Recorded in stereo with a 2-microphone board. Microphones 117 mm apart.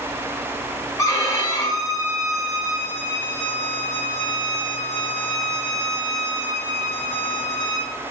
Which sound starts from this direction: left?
A violin, at 1.0 s.